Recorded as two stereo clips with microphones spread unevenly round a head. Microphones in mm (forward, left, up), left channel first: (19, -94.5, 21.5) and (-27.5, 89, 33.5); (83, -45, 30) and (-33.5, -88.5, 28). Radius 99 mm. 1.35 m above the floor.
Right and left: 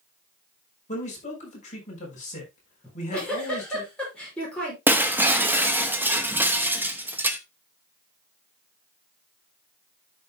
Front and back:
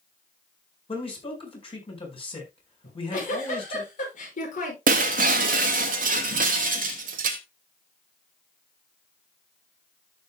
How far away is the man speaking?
About 5 m.